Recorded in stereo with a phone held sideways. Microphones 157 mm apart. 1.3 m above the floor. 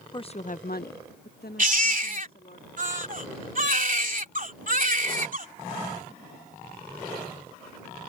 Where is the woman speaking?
25° left (ahead or behind); by 2.6 s 65° left (ahead or behind).